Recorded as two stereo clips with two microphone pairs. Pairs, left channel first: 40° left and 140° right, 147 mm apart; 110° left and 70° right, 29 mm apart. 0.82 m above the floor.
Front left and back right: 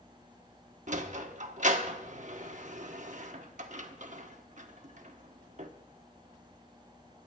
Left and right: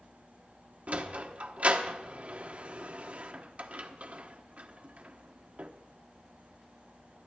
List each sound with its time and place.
0.9 s a sliding door: 105° right, 1.1 m